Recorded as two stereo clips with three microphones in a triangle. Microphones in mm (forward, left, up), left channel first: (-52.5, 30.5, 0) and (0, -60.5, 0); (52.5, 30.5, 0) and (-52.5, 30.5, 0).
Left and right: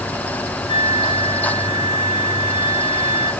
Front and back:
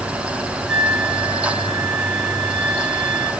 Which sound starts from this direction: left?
A flute, at 0.7 s.